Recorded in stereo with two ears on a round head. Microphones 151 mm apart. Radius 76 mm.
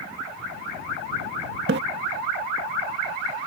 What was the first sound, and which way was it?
A splash, 70° right (ahead or behind).